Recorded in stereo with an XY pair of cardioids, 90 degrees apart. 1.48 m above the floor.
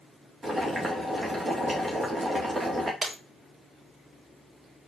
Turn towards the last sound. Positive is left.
turn(degrees=-30)